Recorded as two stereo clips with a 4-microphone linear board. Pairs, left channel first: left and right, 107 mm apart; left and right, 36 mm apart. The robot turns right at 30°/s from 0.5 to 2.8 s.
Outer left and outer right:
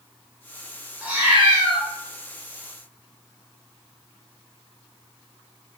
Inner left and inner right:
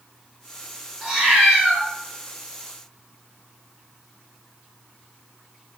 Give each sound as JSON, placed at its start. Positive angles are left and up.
{"t": 1.0, "sound": "a cat meowing", "side_deg": -15, "distance_m": 0.7}